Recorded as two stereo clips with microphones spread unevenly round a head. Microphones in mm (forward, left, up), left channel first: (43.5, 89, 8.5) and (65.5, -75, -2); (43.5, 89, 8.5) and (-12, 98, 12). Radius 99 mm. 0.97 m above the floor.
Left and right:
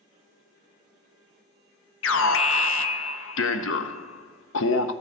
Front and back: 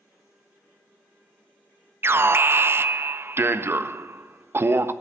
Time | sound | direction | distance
2.0 | an alarm | 120° left | 0.5 m